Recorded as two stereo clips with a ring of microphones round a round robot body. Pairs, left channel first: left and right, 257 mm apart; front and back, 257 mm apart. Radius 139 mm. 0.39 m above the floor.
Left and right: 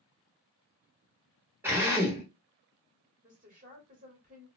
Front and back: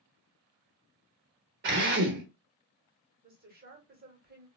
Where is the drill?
170° right, 1.0 m.